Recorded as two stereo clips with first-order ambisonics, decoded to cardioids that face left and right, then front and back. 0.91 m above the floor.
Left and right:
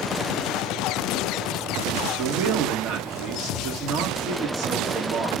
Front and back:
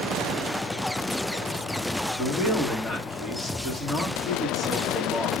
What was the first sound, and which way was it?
A man speaking, 100° right.